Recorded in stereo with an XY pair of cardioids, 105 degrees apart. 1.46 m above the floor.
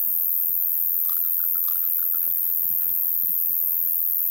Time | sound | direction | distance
0.0 | an insect | 15° left | ?